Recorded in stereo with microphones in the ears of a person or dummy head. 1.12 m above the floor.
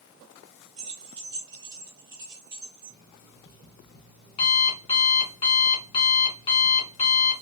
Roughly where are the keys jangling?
Right.